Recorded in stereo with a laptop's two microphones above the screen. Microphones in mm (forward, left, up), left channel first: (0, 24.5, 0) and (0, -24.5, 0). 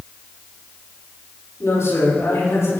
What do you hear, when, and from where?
1.6 s a man speaking: 70° left (ahead or behind), 5.5 m